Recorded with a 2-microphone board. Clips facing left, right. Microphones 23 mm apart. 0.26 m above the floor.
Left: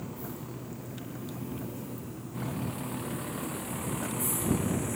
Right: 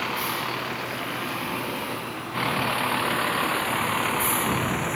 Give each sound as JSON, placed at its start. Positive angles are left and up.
{"t": 0.0, "sound": "a vehicle", "side_deg": -70}